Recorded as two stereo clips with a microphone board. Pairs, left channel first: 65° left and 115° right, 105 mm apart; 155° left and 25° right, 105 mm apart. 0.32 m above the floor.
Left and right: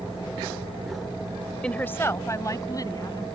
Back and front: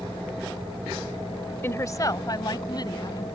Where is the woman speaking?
135° left; by 3.2 s 115° left.